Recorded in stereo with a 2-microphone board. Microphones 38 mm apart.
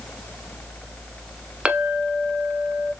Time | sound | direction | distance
1.6 | a clink | 30° right (ahead or behind) | 1.0 m